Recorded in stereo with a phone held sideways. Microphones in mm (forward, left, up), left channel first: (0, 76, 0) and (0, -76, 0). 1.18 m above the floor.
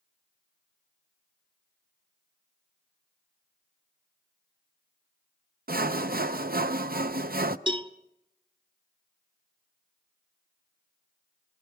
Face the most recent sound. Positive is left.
turn(degrees=-30)  # may be behind; listen again after turning